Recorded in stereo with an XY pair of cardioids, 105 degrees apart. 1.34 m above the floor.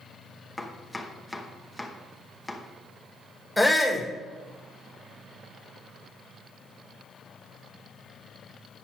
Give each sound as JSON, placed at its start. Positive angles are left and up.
{"t": 0.6, "sound": "chopping", "azimuth_deg": 15, "distance_m": 0.9}
{"t": 3.6, "sound": "a shout", "azimuth_deg": 5, "distance_m": 1.4}